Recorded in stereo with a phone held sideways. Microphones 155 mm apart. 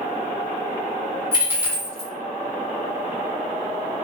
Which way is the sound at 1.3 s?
15° right (ahead or behind).